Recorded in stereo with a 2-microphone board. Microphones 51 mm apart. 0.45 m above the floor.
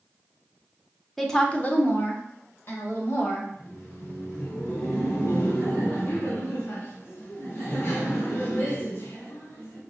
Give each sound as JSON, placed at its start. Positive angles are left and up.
{"t": 1.2, "sound": "a woman speaking", "side_deg": 5, "distance_m": 0.8}
{"t": 3.5, "sound": "laughter", "side_deg": 55, "distance_m": 2.0}